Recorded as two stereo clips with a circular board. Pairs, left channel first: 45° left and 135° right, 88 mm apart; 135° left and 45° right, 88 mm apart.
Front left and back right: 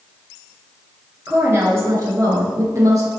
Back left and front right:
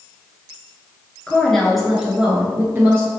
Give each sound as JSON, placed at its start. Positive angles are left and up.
{"t": 1.3, "sound": "a woman speaking", "azimuth_deg": -160, "distance_m": 1.2}